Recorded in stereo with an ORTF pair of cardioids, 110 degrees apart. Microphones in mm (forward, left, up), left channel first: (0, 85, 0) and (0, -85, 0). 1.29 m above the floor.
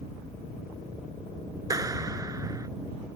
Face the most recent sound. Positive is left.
turn(degrees=-20)